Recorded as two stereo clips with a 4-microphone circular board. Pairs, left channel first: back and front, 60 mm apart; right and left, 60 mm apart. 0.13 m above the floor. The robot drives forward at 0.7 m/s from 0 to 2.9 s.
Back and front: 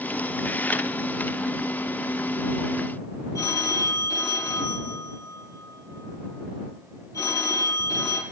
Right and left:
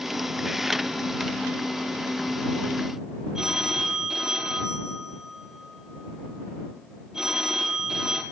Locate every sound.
3.4 s a phone ringing: 170° left, 2.5 m